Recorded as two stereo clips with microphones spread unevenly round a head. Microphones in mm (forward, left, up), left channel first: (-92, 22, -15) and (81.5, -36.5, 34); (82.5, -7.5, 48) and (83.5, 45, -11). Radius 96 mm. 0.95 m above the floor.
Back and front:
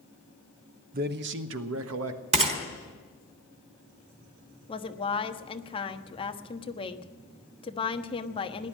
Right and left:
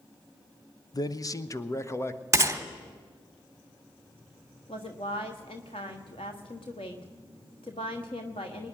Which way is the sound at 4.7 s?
140° right.